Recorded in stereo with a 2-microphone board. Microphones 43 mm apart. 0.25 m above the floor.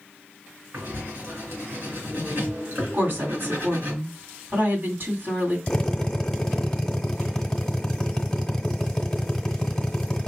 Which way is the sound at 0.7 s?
55° right (ahead or behind).